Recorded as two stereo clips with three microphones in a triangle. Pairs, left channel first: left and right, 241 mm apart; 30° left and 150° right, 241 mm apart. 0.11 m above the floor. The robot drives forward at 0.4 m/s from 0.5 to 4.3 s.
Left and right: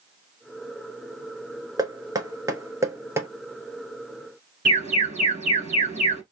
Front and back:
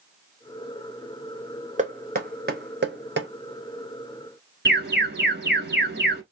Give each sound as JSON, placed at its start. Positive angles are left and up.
{"t": 1.8, "sound": "knocking", "azimuth_deg": -150, "distance_m": 0.8}
{"t": 4.7, "sound": "an alarm", "azimuth_deg": -140, "distance_m": 1.8}